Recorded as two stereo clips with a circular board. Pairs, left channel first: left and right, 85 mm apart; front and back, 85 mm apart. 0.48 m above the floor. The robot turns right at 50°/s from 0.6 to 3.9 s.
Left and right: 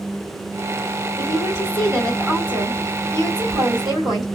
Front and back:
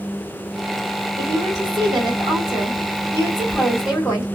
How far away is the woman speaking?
About 2.5 m.